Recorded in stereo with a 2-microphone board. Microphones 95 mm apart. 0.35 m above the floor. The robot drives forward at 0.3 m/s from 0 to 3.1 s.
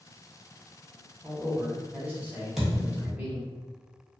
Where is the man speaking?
15° right (ahead or behind), 1.1 m.